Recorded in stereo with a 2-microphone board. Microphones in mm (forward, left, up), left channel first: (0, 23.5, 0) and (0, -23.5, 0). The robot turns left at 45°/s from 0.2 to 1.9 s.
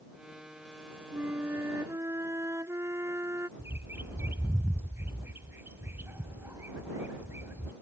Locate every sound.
1.1 s a flute: 40° right; by 3.5 s 75° right
3.6 s a bird: 55° right (ahead or behind)